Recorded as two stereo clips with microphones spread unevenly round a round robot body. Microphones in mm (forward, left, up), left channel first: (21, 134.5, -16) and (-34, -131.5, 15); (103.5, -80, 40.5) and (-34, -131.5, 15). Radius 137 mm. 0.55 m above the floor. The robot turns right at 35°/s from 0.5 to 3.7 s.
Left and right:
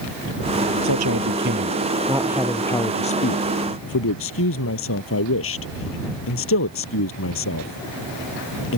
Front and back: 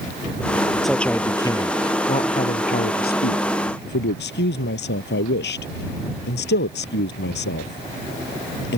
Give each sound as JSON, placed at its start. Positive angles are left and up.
{"t": 0.8, "sound": "a man speaking", "azimuth_deg": -70}